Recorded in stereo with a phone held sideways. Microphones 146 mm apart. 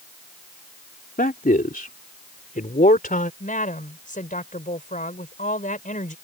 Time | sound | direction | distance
1.2 | a man speaking | 75° left (ahead or behind) | ?
3.4 | a woman speaking | 65° left (ahead or behind) | ?